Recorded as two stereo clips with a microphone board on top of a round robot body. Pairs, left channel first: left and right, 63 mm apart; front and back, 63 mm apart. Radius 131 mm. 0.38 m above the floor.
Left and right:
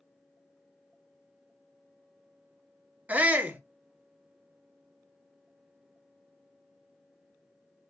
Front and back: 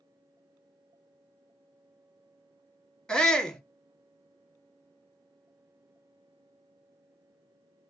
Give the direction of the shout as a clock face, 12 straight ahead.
2 o'clock.